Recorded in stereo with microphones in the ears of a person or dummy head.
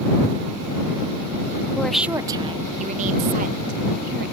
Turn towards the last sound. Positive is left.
turn(degrees=-55)  # may be behind; listen again after turning